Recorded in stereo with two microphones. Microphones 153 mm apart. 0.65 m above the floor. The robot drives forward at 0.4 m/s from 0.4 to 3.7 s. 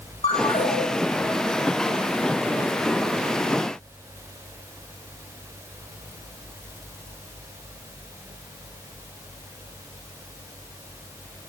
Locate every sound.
0.2 s a ringtone: 45° left (ahead or behind), 1.4 m; by 0.8 s 40° left (ahead or behind), 1.5 m